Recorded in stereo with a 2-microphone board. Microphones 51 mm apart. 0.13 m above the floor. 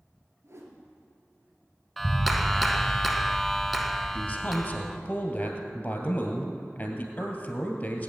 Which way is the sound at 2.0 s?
Centre (ahead or behind).